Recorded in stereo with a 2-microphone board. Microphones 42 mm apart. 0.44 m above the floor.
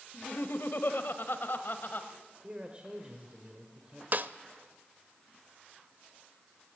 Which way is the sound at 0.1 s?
60° left (ahead or behind).